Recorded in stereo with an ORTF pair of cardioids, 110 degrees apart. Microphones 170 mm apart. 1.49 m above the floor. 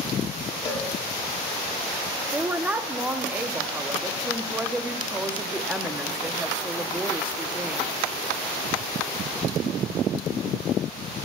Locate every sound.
0.7 s a cowbell: 30° left, 1.7 m
2.3 s a woman speaking: 10° right, 0.8 m